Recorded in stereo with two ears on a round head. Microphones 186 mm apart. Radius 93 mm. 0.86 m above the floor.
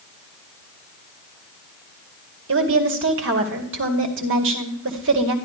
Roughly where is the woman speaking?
Right.